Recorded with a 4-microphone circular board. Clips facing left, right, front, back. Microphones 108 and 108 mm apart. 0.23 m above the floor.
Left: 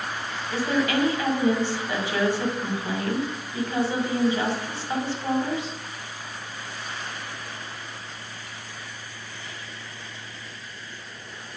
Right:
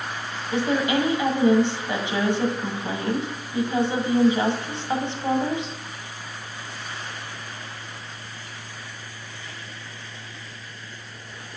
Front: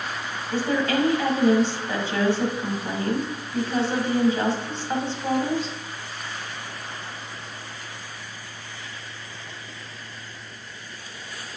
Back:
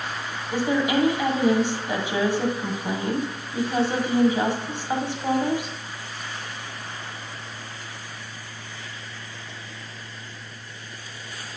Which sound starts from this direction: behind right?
A woman speaking, at 0.5 s.